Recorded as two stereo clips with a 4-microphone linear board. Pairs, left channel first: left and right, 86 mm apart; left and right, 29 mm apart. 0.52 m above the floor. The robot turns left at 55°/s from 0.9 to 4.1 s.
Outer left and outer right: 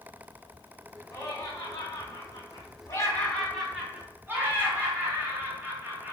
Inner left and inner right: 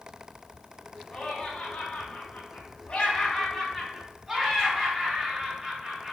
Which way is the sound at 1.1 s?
140° left.